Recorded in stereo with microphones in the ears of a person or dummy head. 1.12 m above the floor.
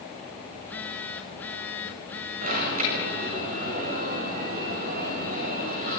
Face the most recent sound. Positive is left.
turn(degrees=-50)  # may be behind; listen again after turning